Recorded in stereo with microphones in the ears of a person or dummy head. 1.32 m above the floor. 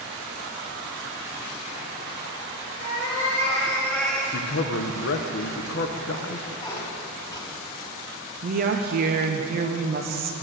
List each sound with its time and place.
2.8 s a cat meowing: 35° left (ahead or behind), 1.4 m; by 4.2 s 5° left (ahead or behind), 1.6 m
4.3 s a man speaking: 55° left (ahead or behind), 0.7 m
6.6 s a squeak: 30° left (ahead or behind), 1.6 m
8.4 s a woman speaking: 45° right (ahead or behind), 0.6 m